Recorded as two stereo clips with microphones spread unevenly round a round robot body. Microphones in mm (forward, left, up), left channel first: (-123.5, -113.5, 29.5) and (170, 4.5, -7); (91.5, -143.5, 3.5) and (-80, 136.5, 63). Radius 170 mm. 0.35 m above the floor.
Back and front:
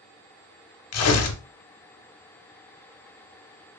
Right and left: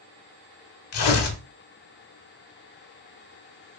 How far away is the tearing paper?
About 0.5 m.